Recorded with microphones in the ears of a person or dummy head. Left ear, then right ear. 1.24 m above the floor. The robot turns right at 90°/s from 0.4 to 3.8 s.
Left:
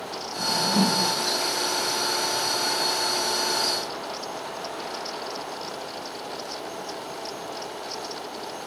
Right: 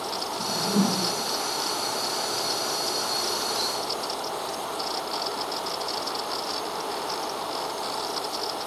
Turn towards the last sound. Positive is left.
turn(degrees=80)